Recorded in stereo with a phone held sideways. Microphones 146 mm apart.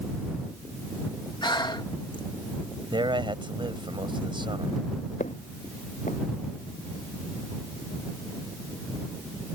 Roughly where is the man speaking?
Right.